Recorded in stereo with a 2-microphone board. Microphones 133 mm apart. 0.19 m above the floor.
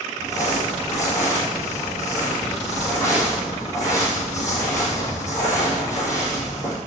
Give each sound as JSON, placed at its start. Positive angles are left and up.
{"t": 0.2, "sound": "crumpling", "side_deg": 20, "distance_m": 3.5}